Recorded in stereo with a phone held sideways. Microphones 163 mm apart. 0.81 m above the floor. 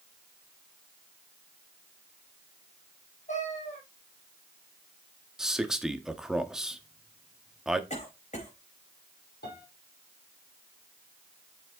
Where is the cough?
45° left (ahead or behind), 4 m.